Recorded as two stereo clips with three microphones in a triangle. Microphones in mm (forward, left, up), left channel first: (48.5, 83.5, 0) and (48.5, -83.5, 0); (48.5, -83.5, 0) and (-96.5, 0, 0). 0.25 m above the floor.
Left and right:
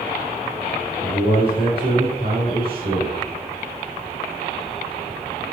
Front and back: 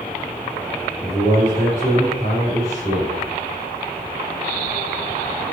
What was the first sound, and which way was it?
A man speaking, 85° right.